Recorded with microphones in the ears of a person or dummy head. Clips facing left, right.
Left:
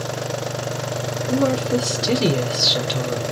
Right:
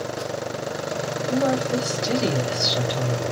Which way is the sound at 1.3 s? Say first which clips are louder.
Left 3 dB; 55° left (ahead or behind).